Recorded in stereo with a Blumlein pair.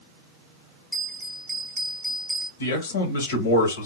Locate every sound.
0.9 s a bell: 10° right, 0.7 m
2.6 s a man speaking: 65° left, 1.0 m